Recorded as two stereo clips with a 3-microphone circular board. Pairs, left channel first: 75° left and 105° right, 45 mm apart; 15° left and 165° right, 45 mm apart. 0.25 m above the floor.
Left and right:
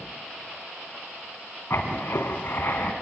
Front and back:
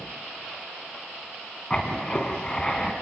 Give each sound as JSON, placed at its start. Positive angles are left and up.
{"t": 1.7, "sound": "writing", "azimuth_deg": 80, "distance_m": 1.7}